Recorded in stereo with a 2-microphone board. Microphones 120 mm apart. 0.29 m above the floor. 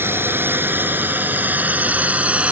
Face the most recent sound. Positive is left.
turn(degrees=-10)  # may be behind; listen again after turning